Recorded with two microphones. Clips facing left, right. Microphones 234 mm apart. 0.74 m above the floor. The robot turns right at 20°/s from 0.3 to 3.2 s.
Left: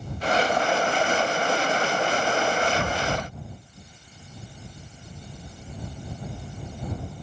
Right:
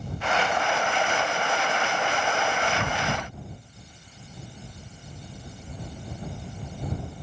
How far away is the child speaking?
I don't hear a child speaking.